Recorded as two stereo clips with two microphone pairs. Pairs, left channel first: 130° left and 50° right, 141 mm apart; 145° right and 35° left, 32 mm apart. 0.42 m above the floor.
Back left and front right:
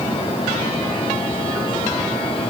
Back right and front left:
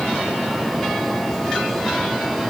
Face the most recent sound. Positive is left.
No sound to turn to.